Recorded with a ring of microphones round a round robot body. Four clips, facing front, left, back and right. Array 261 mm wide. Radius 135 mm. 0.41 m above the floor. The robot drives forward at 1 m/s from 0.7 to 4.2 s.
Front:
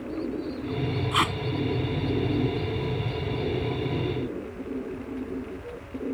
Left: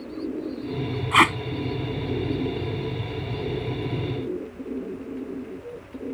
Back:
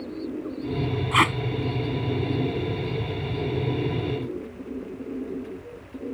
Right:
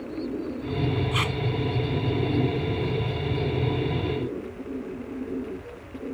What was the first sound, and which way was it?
Tape being pulled, 110° left.